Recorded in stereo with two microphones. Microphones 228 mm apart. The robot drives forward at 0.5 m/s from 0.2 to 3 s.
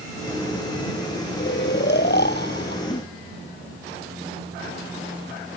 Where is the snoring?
50° left (ahead or behind); by 2.8 s 45° left (ahead or behind).